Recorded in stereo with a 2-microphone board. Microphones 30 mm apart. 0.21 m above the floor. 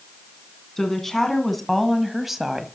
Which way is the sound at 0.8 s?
15° left (ahead or behind).